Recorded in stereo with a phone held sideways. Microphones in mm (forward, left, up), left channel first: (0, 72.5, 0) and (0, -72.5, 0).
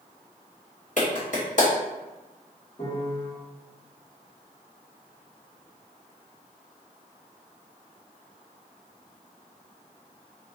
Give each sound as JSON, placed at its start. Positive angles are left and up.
{"t": 1.0, "sound": "a clap", "side_deg": 55, "distance_m": 1.5}
{"t": 2.8, "sound": "a piano", "side_deg": 40, "distance_m": 1.4}